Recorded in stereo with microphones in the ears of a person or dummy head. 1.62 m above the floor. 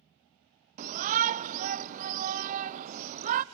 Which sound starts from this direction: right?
A shout, at 0.8 s.